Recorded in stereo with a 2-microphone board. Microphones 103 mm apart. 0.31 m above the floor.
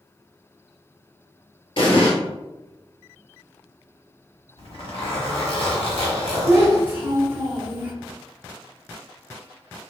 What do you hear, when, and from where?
1.8 s an explosion: 55° left (ahead or behind), 0.9 m
4.6 s a zipper: 60° left (ahead or behind), 1.0 m
6.5 s a child speaking: 25° right (ahead or behind), 0.9 m